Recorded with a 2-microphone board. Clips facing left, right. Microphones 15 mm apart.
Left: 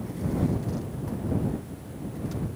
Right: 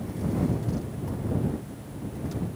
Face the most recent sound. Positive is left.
No sound to turn to.